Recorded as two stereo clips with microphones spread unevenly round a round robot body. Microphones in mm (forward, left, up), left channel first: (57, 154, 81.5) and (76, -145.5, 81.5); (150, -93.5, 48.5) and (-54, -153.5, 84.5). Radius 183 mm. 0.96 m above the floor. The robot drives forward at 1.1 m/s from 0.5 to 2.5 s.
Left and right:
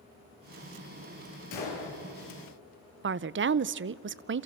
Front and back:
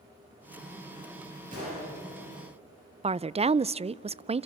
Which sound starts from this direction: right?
A woman speaking, at 3.0 s.